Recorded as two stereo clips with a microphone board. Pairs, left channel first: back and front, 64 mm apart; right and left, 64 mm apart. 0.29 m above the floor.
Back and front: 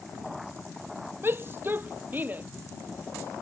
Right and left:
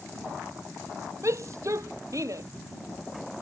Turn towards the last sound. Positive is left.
turn(degrees=60)